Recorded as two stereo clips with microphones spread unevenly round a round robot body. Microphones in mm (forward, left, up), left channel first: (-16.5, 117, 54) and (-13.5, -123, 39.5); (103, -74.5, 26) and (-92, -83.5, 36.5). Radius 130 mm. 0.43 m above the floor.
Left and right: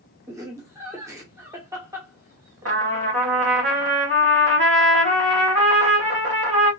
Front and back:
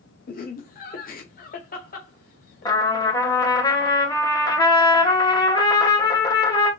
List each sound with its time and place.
0.3 s laughter: 15° right, 1.2 m
2.6 s a trumpet: 65° right, 2.5 m